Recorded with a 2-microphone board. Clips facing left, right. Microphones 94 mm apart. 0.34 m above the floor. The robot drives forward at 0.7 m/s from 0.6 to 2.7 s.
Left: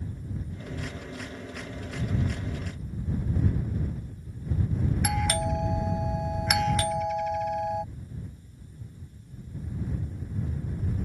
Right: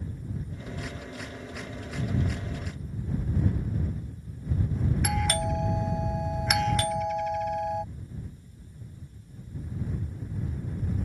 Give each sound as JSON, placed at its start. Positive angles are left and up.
{"t": 5.0, "sound": "a doorbell", "side_deg": 0}